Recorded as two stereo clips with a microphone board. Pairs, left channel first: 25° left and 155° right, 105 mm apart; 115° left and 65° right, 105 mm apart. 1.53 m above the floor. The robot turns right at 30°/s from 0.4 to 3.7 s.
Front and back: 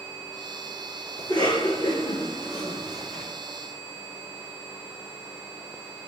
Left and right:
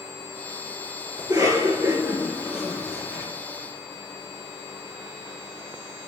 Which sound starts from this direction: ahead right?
A cough, at 1.2 s.